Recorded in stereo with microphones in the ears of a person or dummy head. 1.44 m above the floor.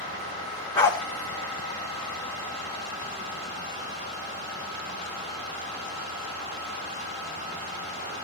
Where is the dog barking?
20° left (ahead or behind), 1.7 m.